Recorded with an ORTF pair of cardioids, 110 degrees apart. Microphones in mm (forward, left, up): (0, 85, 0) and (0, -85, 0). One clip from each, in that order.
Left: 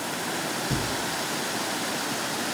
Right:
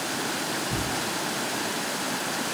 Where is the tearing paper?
45° left, 1.9 m.